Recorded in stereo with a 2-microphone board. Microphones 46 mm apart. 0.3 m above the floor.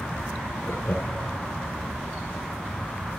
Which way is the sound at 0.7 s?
40° left (ahead or behind).